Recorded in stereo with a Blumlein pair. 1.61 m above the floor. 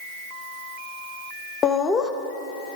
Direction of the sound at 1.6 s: 20° left.